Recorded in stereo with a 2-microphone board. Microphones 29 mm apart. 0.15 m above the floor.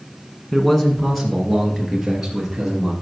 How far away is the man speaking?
About 1.3 m.